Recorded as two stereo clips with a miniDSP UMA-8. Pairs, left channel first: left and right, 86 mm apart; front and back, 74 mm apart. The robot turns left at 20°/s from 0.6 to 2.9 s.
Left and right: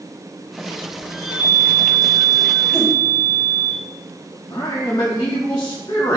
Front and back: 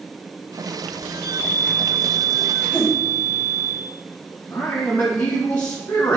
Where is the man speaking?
45° left, 0.6 m.